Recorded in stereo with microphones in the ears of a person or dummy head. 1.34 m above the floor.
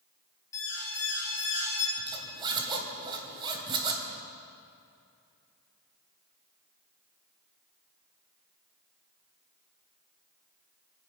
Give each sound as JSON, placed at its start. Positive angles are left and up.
{"t": 0.5, "sound": "an alarm", "side_deg": 20, "distance_m": 5.5}
{"t": 2.0, "sound": "a zipper", "side_deg": -25, "distance_m": 2.5}